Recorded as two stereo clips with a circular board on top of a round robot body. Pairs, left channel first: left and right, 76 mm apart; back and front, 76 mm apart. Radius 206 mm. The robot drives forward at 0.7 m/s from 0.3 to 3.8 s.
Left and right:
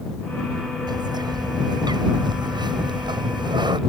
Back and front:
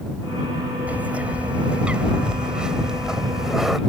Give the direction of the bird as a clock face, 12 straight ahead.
2 o'clock.